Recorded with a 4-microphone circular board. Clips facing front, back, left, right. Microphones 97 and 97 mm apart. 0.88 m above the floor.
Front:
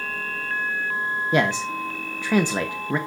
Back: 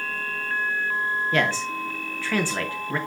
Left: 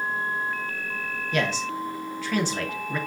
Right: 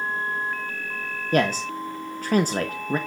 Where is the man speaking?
65° right, 0.8 m.